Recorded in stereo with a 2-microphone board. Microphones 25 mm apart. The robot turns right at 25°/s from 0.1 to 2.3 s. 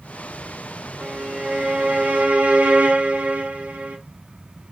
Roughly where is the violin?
Behind right.